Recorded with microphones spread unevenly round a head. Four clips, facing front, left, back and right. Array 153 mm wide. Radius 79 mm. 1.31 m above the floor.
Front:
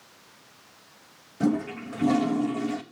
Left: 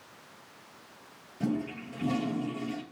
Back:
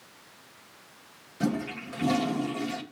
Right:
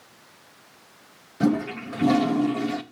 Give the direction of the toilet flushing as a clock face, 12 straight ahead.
2 o'clock.